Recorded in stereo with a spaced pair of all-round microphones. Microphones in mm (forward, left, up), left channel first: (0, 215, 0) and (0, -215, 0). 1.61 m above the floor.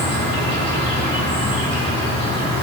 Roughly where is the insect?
Centre.